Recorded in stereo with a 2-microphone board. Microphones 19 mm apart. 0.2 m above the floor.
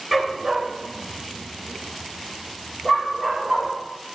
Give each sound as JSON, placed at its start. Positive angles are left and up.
{"t": 0.1, "sound": "a dog barking", "side_deg": -10, "distance_m": 1.0}